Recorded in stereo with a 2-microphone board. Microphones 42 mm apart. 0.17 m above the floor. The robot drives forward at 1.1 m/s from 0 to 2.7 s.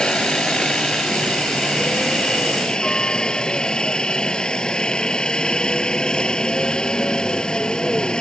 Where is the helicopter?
20° left (ahead or behind).